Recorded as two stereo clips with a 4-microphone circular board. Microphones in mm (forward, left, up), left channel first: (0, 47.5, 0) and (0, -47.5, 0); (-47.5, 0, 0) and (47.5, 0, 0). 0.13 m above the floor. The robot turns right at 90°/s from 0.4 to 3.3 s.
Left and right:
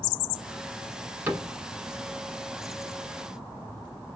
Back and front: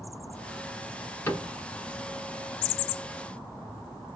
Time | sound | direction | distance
1.3 | a cupboard door | 135° right | 1.2 m